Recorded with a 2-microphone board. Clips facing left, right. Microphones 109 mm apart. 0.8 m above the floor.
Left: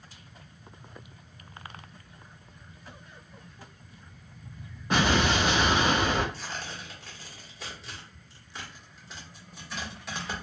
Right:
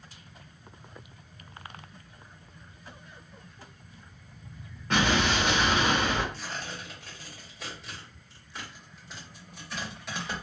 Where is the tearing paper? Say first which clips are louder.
Even; centre (ahead or behind), 1.6 m.